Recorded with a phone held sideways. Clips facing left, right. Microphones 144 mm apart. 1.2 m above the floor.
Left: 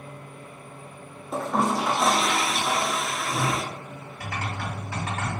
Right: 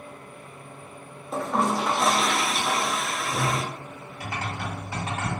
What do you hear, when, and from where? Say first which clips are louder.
1.3 s a toilet flushing: even; centre (ahead or behind), 0.7 m
4.2 s typing on a keyboard: even; 25° right (ahead or behind), 2.5 m